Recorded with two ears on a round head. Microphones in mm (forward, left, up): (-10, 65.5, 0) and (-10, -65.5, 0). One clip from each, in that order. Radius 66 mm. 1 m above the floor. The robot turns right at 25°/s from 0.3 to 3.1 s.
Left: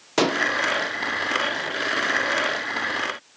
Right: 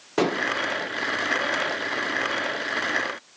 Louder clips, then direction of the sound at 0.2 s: Left 3 dB; 80° left.